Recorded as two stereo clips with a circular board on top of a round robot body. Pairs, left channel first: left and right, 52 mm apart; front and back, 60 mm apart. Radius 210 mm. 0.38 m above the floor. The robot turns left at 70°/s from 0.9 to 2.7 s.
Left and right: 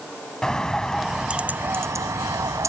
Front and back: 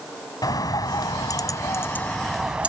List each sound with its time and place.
0.4 s a bird: 15° left; by 2.7 s 115° right